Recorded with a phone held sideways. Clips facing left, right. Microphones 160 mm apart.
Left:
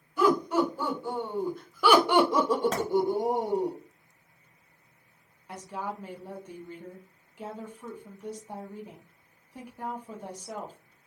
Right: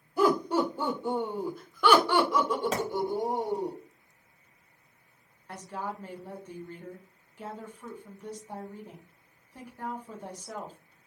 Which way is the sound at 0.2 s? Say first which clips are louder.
Left 1 dB; 35° right (ahead or behind).